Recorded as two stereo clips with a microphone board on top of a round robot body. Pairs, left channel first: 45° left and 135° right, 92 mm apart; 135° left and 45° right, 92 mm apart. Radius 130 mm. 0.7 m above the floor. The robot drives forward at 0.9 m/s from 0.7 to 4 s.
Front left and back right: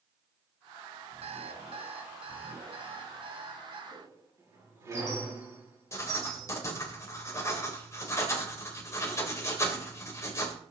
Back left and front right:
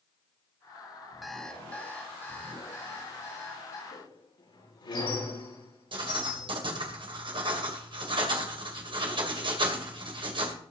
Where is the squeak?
165° left, 7 m.